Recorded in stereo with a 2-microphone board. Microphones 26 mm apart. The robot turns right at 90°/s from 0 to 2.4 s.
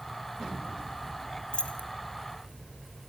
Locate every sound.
1.5 s keys jangling: 40° left (ahead or behind), 1.7 m; by 1.9 s 70° left (ahead or behind), 1.7 m